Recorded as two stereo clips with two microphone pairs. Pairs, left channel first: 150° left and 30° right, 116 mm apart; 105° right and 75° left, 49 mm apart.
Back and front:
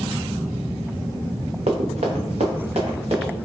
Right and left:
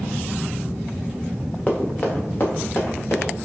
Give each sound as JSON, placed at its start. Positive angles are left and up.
{"t": 1.7, "sound": "running footsteps", "azimuth_deg": -35, "distance_m": 1.1}